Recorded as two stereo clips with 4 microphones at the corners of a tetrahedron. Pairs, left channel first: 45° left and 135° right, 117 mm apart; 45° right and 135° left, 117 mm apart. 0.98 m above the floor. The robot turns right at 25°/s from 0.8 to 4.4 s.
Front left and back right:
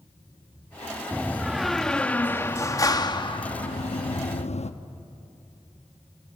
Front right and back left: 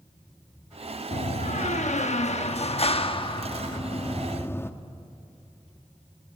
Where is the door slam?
60° right, 0.9 m; by 4.7 s 25° left, 0.9 m.